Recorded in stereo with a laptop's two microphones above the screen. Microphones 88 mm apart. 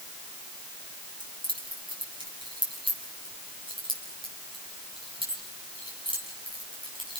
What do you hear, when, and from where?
1.2 s keys jangling: 70° right (ahead or behind), 6.5 m; by 7.2 s 75° right (ahead or behind), 6.5 m